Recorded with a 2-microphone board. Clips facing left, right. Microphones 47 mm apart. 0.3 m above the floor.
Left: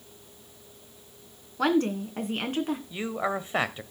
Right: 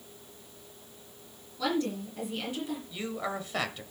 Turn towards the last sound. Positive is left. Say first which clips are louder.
# left 5 dB
turn(degrees=25)  # may be behind; listen again after turning